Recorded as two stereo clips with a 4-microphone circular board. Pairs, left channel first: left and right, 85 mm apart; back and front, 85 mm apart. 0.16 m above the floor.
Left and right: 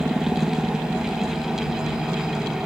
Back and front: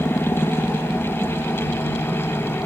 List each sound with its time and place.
0.0 s a helicopter: 155° right; by 2.7 s 165° right